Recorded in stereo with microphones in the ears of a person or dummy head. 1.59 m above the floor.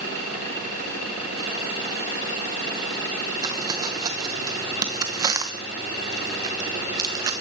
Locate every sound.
3.4 s crumpling: 20° right (ahead or behind), 1.0 m